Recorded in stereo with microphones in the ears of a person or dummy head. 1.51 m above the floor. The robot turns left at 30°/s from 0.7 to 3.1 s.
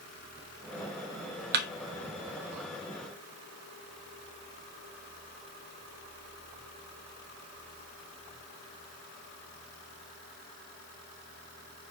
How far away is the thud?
About 1.1 m.